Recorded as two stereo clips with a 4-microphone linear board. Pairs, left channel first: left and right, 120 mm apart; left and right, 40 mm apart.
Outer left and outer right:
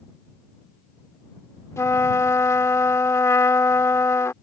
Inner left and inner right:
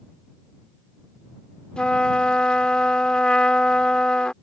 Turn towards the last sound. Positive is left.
turn(degrees=25)  # may be behind; listen again after turning